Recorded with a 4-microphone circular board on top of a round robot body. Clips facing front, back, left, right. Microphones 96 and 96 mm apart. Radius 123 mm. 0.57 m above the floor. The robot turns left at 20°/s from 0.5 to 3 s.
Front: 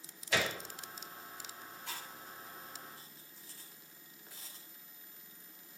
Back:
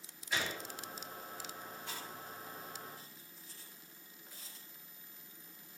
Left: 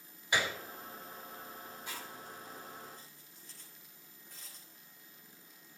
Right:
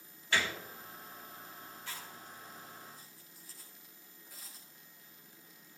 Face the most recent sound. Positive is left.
turn(degrees=-5)